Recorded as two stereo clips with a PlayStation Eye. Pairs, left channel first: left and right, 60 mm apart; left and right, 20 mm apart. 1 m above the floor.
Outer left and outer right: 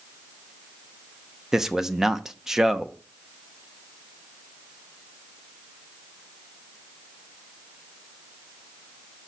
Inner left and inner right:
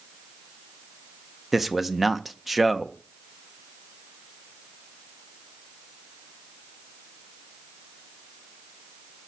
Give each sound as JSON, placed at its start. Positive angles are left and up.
{"t": 1.5, "sound": "a man speaking", "side_deg": -10, "distance_m": 0.6}